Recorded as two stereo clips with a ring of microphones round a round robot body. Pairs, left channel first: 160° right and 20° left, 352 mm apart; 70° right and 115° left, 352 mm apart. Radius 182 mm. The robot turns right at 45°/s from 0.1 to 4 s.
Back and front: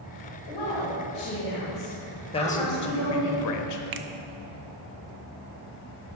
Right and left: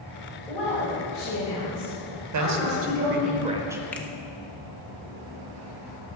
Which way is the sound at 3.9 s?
15° left.